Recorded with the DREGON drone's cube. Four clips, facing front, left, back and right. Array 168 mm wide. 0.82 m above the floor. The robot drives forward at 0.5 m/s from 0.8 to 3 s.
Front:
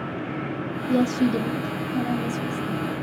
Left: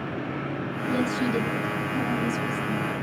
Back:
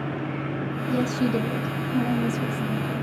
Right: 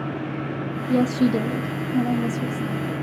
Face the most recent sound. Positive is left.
turn(degrees=-155)